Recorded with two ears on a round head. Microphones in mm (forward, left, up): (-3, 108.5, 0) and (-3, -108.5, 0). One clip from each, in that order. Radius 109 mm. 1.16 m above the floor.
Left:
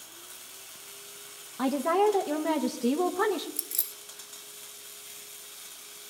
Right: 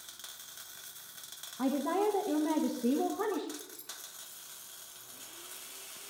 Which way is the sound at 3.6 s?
65° left (ahead or behind).